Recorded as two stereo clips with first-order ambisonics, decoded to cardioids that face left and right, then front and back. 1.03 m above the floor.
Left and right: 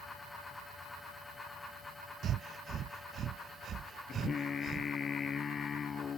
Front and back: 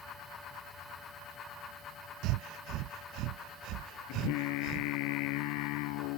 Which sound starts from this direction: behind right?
Breathing, at 2.2 s.